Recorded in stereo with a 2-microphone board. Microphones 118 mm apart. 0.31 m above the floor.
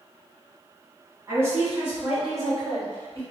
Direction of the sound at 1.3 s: 25° right (ahead or behind).